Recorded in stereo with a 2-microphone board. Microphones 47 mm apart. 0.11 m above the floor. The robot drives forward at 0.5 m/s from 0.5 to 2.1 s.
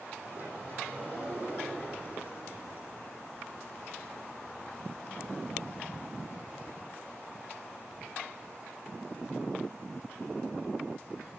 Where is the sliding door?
35° right (ahead or behind), 3.5 m; by 3.1 s 30° right (ahead or behind), 4.5 m.